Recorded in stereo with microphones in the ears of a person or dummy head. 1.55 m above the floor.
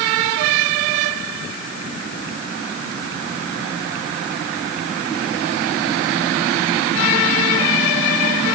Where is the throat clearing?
No throat clearing in this recording.